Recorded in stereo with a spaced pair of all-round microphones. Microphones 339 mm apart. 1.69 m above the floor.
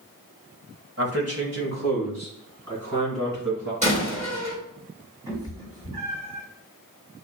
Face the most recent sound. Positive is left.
turn(degrees=-10)  # may be behind; listen again after turning